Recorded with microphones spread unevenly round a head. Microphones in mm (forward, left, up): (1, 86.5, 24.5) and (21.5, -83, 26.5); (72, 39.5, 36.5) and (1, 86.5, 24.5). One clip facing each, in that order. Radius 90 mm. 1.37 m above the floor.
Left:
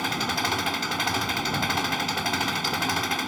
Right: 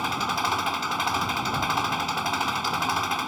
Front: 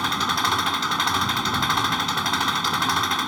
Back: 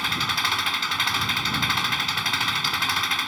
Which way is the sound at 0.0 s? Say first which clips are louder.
Even, front 4 dB; 25° left.